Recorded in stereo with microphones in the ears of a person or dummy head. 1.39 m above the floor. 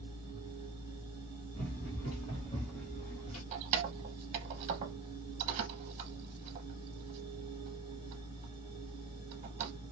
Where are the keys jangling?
40° right (ahead or behind), 0.9 m.